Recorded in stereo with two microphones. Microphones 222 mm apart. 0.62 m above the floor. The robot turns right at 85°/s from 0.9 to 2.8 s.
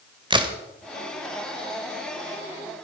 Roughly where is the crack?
Right.